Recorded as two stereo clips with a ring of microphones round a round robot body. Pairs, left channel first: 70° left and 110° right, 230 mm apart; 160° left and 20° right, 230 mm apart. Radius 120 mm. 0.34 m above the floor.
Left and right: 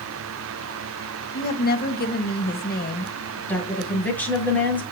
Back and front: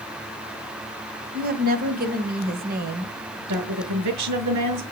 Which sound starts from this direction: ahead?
A woman speaking, at 3.5 s.